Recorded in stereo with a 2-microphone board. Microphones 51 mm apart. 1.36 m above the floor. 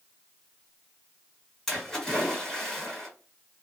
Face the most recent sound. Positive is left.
turn(degrees=5)  # may be behind; listen again after turning